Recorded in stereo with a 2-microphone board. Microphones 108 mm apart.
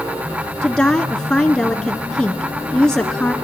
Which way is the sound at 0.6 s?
5° left (ahead or behind).